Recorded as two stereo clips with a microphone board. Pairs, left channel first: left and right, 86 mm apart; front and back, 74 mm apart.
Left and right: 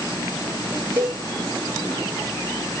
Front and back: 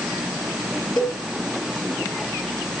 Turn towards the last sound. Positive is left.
turn(degrees=-30)